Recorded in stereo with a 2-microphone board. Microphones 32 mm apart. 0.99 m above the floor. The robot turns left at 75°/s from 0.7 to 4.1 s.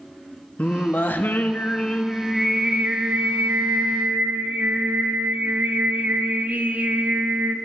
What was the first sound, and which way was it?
Singing, 130° left.